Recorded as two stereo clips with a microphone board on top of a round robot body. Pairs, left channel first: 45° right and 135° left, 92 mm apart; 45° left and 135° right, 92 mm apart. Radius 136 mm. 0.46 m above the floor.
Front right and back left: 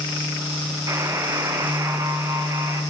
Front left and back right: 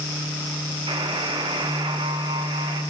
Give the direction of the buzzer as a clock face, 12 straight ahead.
6 o'clock.